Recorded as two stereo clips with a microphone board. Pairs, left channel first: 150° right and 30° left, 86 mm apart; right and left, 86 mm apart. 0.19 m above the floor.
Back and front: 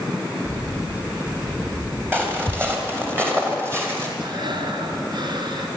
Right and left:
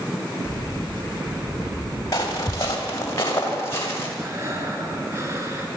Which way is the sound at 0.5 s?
35° right.